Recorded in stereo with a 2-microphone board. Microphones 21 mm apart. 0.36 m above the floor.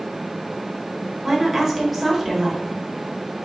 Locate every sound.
1.2 s a woman speaking: 5° right (ahead or behind), 1.0 m